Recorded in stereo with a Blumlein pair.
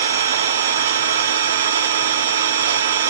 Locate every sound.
0.0 s an engine running: 60° right, 0.9 m